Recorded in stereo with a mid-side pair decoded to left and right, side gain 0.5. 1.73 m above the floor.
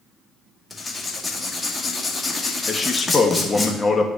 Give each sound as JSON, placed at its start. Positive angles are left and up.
{"t": 0.7, "sound": "writing", "azimuth_deg": 25, "distance_m": 1.7}
{"t": 2.7, "sound": "a man speaking", "azimuth_deg": 25, "distance_m": 1.4}